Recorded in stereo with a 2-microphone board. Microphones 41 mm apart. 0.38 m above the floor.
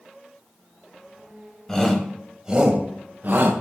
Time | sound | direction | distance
1.7 | a shout | 10° left (ahead or behind) | 2.5 m